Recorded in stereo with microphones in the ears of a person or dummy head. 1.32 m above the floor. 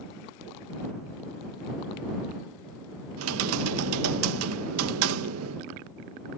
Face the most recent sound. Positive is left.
turn(degrees=-85)